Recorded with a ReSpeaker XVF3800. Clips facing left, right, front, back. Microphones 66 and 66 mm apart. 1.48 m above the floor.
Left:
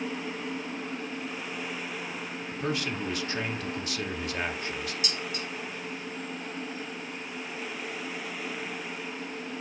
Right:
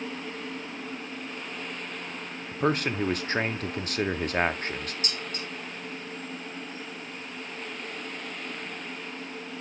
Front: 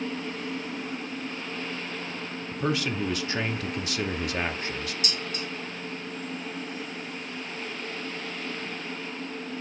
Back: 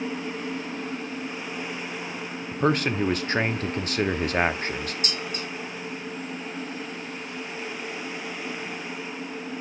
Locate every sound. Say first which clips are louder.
2.5 s a man speaking: right 6 dB, back 5 dB; 130° right, 0.6 m
5.0 s dishes clattering: left 1 dB, back 1 dB; 135° right, 3 m